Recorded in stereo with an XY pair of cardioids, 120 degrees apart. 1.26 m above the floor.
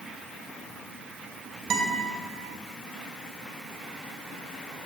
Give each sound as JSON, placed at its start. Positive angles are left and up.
{"t": 1.7, "sound": "a guitar", "azimuth_deg": -45, "distance_m": 3.0}